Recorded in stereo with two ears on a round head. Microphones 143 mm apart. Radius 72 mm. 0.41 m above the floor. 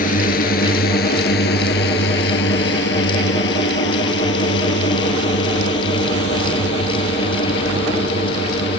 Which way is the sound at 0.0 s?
60° left (ahead or behind).